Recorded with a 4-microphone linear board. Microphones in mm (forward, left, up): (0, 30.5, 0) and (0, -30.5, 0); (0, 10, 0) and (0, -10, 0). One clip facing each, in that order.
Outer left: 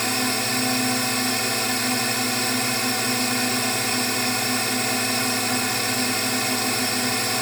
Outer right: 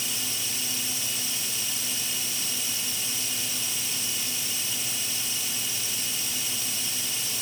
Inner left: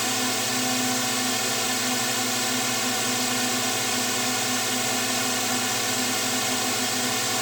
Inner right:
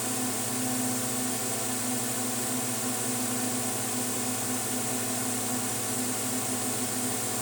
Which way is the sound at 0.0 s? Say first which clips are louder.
Outer left 12 dB, inner left 7 dB; 55° left (ahead or behind).